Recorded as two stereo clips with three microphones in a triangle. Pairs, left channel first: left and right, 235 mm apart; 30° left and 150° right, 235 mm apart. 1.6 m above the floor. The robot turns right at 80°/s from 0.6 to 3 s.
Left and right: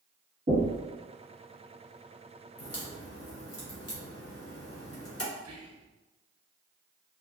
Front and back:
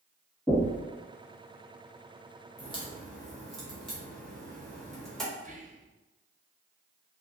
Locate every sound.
0.5 s knocking: 55° right, 1.5 m; by 0.8 s 35° right, 1.5 m
2.6 s a crack: 85° left, 0.8 m; by 5.2 s 120° left, 0.8 m
5.4 s whispering: 90° right, 0.5 m